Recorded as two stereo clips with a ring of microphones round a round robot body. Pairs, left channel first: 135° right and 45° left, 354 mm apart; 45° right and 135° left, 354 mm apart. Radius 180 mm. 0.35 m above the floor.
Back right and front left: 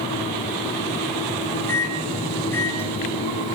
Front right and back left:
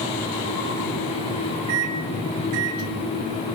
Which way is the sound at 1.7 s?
140° left.